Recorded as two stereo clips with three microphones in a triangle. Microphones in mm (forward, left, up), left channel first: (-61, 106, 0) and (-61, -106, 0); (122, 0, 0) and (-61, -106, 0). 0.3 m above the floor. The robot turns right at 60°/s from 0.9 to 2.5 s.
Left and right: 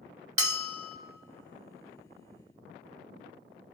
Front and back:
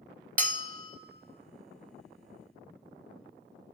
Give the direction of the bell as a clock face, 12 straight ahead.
3 o'clock.